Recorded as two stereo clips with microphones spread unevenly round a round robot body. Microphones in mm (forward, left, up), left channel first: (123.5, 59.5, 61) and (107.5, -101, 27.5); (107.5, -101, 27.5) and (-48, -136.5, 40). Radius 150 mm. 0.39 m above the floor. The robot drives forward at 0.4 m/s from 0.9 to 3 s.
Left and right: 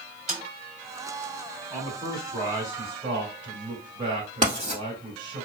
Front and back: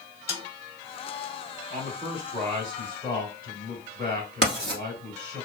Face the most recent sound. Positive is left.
turn(degrees=-170)